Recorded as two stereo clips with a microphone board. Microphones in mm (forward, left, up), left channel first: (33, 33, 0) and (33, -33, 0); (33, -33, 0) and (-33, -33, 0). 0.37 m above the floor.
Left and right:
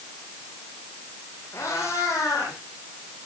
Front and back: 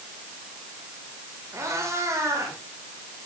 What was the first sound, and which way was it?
A cat meowing, 135° left.